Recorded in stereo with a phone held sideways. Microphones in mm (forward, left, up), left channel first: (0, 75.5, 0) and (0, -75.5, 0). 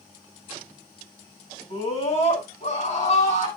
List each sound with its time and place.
1.7 s a scream: 45° left (ahead or behind), 9.5 m; by 3.5 s 50° left (ahead or behind), 9.5 m